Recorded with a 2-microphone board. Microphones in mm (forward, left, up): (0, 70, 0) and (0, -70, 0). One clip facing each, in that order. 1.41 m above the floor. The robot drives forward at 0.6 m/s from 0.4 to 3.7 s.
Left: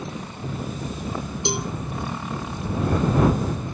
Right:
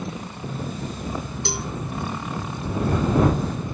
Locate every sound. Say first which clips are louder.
1.4 s a cowbell: left 7 dB; 20° left (ahead or behind)